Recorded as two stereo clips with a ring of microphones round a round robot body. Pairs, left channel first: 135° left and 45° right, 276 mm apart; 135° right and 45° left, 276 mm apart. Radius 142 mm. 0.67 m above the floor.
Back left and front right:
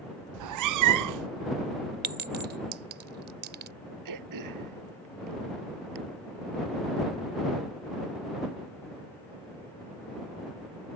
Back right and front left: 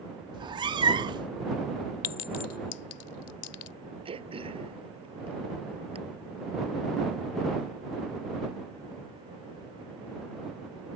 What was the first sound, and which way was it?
A cat meowing, 30° right.